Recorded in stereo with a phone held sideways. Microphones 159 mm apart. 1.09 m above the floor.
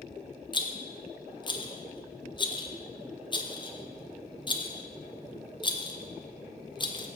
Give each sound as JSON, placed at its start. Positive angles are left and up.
{"t": 0.5, "sound": "a rattle", "side_deg": 30, "distance_m": 0.6}